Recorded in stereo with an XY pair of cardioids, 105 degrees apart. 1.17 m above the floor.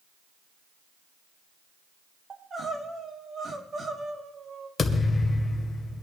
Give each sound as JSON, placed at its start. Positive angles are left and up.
{"t": 2.3, "sound": "crying", "azimuth_deg": -40, "distance_m": 2.0}
{"t": 4.8, "sound": "a thud", "azimuth_deg": 35, "distance_m": 2.0}